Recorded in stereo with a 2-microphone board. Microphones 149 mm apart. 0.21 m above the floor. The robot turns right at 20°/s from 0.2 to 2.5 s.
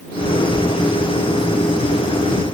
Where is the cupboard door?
I don't hear a cupboard door.